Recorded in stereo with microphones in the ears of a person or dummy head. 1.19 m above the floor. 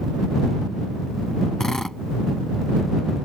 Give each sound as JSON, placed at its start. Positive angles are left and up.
{"t": 1.6, "sound": "a drill", "side_deg": 0}